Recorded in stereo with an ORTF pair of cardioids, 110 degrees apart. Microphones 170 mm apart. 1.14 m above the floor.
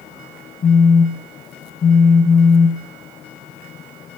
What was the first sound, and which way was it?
A phone buzzing, 35° left.